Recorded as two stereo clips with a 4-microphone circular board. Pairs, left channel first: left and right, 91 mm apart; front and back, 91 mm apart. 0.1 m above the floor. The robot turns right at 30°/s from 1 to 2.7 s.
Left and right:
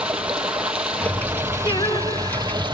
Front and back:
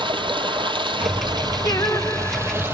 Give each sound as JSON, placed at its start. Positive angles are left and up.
{"t": 0.0, "sound": "running water", "azimuth_deg": -170, "distance_m": 3.5}
{"t": 1.6, "sound": "singing", "azimuth_deg": 55, "distance_m": 3.0}